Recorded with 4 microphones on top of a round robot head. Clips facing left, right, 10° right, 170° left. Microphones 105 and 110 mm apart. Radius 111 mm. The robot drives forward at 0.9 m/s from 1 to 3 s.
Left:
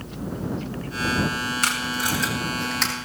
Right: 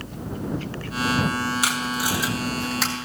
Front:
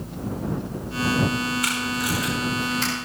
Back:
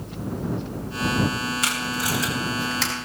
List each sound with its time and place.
1.6 s tape being pulled: 170° right, 2.5 m; by 2.9 s 175° right, 3.5 m